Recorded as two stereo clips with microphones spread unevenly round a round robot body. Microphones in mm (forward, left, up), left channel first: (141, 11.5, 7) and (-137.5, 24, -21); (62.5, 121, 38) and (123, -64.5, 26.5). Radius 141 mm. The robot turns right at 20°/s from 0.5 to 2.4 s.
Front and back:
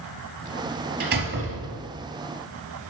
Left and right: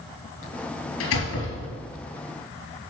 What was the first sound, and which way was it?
A door slam, 120° left.